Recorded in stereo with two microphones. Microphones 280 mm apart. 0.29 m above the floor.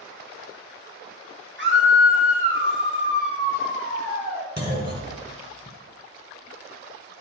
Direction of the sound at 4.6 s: 35° right (ahead or behind).